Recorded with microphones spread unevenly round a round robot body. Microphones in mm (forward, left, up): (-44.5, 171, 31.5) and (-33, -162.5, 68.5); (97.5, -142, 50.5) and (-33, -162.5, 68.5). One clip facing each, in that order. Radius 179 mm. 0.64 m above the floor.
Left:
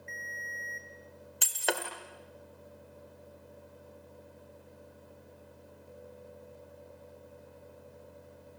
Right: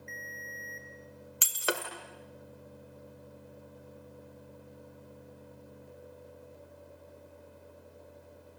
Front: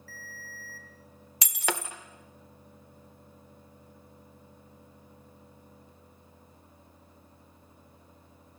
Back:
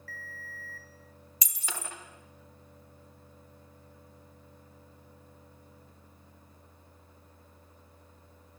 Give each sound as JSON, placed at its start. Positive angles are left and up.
{"t": 0.1, "sound": "a ringtone", "azimuth_deg": -140, "distance_m": 1.7}
{"t": 1.4, "sound": "breaking glass", "azimuth_deg": -5, "distance_m": 1.5}